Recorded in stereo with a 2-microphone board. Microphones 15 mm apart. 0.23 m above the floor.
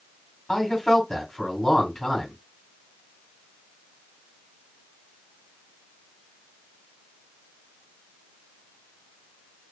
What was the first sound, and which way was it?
A man speaking, 20° left (ahead or behind).